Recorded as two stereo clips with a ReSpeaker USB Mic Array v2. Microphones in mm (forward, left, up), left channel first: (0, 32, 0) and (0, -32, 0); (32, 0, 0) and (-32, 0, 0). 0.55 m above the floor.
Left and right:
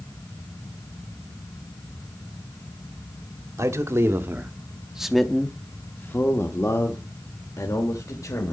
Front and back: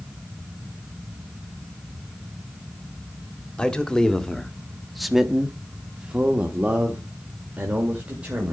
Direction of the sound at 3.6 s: 75° right.